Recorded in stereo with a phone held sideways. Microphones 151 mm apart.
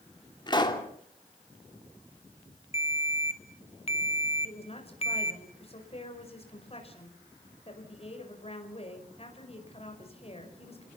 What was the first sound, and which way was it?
A pop, 30° left (ahead or behind).